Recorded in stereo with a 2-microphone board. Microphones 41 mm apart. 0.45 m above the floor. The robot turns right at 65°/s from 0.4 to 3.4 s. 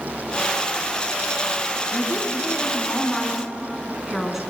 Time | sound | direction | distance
1.9 | a woman speaking | 90° left | 5 m